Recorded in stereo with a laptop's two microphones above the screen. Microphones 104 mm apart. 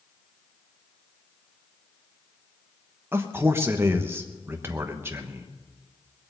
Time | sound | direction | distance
3.1 | a man speaking | 20° right (ahead or behind) | 1.0 m